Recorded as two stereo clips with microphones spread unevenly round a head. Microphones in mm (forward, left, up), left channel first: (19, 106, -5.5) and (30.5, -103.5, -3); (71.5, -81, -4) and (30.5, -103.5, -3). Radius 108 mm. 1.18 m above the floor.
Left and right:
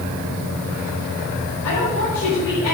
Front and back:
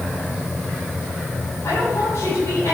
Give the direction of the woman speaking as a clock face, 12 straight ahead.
9 o'clock.